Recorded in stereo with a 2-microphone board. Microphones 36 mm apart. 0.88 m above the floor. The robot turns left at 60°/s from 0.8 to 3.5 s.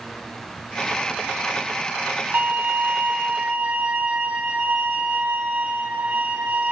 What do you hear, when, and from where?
2.3 s a violin: 60° right, 5 m; by 6.7 s 130° right, 5 m